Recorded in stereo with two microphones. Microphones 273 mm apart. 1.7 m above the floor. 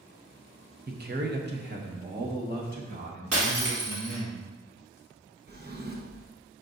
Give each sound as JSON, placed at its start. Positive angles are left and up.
{"t": 0.9, "sound": "a man speaking", "side_deg": -35, "distance_m": 0.7}
{"t": 3.3, "sound": "breaking glass", "side_deg": -60, "distance_m": 1.5}
{"t": 5.5, "sound": "a drawer", "side_deg": -35, "distance_m": 0.9}